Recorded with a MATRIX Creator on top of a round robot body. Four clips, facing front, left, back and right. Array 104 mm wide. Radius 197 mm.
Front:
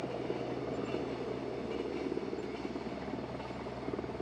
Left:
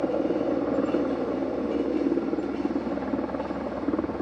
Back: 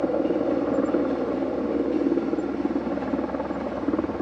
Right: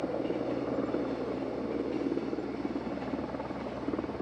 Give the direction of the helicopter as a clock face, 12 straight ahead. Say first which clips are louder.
Left 7 dB, back 14 dB; 7 o'clock.